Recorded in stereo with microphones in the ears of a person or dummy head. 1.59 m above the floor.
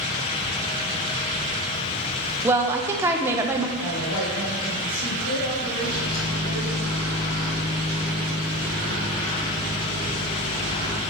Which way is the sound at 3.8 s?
75° left (ahead or behind).